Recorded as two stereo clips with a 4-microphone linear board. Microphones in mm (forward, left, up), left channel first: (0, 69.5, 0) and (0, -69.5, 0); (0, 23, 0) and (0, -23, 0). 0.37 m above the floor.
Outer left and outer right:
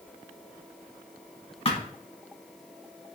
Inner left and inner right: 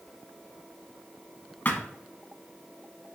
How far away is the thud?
About 0.8 m.